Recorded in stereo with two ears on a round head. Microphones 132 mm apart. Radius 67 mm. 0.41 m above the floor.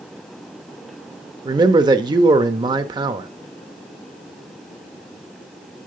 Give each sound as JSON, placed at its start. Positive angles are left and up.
{"t": 1.4, "sound": "a man speaking", "side_deg": -30, "distance_m": 0.9}